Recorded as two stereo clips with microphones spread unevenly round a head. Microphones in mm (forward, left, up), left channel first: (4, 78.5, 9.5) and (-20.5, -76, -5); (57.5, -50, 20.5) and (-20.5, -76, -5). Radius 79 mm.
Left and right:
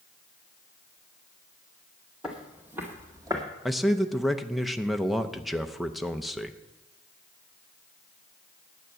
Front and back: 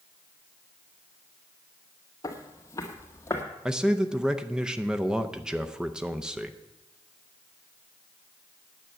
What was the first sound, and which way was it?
Footsteps, 10° right.